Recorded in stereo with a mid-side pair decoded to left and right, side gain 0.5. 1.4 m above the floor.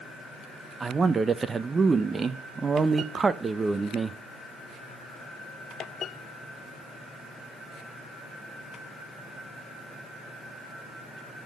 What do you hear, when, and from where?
0.8 s a man speaking: 30° right, 1.0 m